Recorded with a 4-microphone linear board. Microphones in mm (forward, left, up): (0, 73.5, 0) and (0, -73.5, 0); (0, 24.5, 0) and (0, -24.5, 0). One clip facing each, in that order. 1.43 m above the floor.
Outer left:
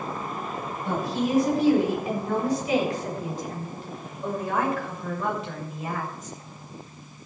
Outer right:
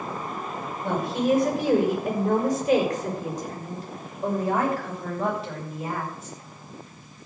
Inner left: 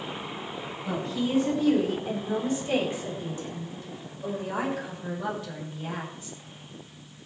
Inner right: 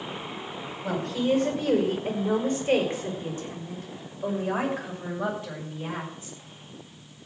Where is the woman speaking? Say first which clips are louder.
Outer right 3 dB, inner right 4 dB; 55° right (ahead or behind), 5.5 m; by 6.4 s 30° right (ahead or behind), 7 m.